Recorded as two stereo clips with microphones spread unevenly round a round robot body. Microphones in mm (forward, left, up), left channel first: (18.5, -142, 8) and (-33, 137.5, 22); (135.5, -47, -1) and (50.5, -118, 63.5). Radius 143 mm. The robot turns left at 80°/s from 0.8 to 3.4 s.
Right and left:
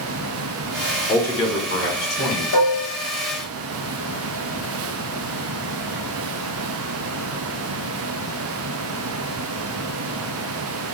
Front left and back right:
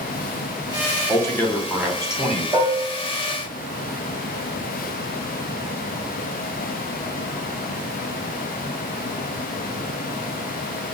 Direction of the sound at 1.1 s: 15° left.